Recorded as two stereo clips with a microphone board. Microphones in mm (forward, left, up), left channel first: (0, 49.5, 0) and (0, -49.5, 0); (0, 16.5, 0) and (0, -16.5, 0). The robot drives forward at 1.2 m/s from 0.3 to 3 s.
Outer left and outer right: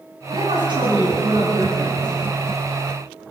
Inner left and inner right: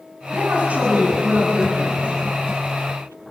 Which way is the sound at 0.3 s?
55° right (ahead or behind).